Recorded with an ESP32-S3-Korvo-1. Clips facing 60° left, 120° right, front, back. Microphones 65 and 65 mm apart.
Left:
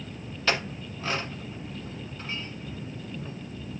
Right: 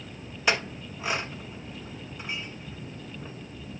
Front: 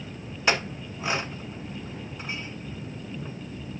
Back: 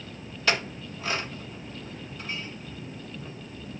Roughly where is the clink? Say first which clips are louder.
Right 1 dB, front 2 dB; ahead right.